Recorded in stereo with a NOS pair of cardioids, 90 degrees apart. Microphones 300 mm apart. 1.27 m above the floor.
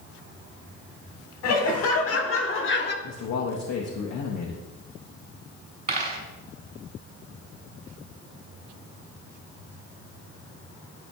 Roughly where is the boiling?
No boiling in this recording.